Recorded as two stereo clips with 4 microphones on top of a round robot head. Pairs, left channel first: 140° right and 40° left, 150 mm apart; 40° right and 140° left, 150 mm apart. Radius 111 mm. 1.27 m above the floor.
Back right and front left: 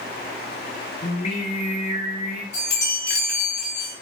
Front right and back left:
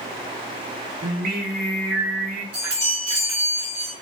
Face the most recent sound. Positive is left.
turn(degrees=-160)